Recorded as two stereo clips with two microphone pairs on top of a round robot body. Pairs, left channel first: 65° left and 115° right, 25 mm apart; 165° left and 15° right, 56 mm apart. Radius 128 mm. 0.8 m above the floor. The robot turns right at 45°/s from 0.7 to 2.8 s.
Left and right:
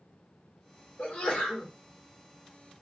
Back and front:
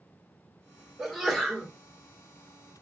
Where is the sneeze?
70° left, 1.6 m; by 1.7 s 105° left, 1.6 m.